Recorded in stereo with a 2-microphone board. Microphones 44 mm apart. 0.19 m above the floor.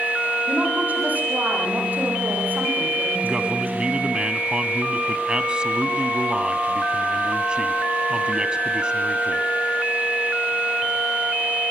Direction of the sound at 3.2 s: 20° right (ahead or behind).